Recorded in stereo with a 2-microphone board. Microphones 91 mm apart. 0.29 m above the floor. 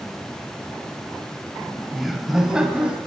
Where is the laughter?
5° left (ahead or behind), 1.0 m; by 3.0 s 10° right (ahead or behind), 1.9 m.